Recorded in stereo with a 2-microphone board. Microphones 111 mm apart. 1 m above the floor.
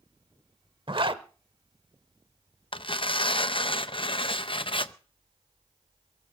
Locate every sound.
0.9 s a zipper: 50° right (ahead or behind), 0.9 m
2.7 s tearing paper: 50° left (ahead or behind), 0.7 m